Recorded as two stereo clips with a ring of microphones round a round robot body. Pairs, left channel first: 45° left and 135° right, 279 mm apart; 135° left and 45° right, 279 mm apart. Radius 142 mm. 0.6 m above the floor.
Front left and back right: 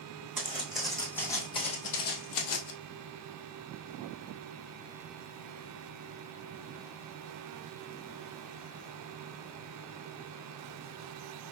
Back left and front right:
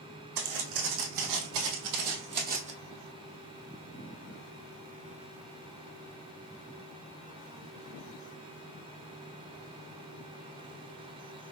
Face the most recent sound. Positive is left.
turn(degrees=20)